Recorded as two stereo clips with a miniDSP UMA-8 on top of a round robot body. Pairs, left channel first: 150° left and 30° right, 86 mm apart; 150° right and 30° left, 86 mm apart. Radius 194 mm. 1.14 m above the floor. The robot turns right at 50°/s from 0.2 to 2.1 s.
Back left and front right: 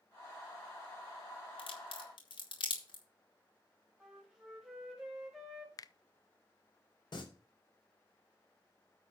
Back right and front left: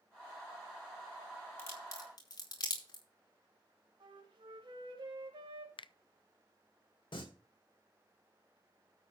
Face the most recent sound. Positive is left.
turn(degrees=-175)